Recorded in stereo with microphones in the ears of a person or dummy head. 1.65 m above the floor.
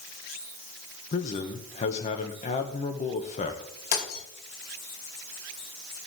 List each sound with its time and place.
1.1 s a man speaking: 40° left (ahead or behind), 1.1 m
3.9 s breaking glass: 75° left (ahead or behind), 4 m